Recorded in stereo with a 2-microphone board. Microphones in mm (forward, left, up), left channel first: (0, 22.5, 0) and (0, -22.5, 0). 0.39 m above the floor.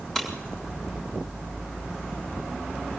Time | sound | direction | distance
0.1 | breaking glass | 15° left (ahead or behind) | 8 m